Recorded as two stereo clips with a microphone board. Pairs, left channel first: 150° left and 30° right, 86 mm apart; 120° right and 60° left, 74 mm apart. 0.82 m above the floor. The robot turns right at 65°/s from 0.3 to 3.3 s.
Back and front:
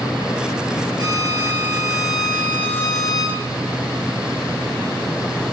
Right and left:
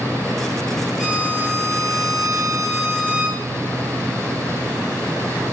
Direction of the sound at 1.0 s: 20° right.